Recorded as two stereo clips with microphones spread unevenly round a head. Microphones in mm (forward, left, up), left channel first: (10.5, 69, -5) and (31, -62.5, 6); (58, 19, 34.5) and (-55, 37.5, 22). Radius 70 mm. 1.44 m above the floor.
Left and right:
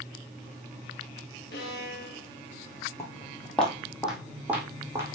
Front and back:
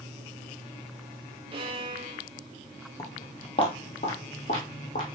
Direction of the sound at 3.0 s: 30° left.